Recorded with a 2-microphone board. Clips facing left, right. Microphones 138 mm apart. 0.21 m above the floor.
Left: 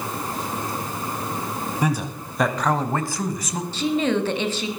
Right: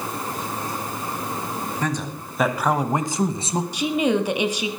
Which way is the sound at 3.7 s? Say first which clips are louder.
Even; 15° right (ahead or behind).